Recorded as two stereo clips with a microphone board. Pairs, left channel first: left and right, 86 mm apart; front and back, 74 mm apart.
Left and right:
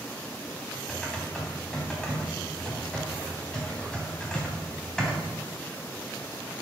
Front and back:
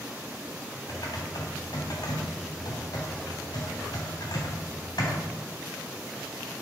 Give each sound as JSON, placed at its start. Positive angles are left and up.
{"t": 0.9, "sound": "typing on a keyboard", "azimuth_deg": 10, "distance_m": 3.0}